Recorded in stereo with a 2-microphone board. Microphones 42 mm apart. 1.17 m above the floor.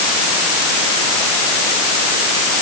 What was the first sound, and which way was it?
Only background noise.